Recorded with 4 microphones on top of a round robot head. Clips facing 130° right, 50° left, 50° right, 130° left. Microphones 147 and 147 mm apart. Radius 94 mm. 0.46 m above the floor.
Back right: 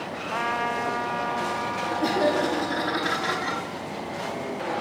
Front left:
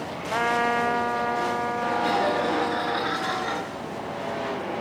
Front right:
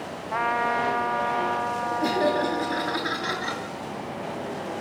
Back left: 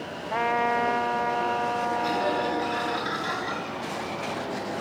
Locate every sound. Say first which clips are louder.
0.3 s a trumpet: front left 5 dB, back left 1 dB; 70° left, 1.4 m
2.0 s laughter: back right 3 dB, front right 7 dB; 85° right, 9.5 m